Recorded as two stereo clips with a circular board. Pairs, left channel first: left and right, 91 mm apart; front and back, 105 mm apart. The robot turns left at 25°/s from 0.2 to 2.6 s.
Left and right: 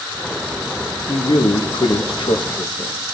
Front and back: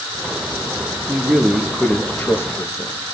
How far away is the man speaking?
About 1.2 m.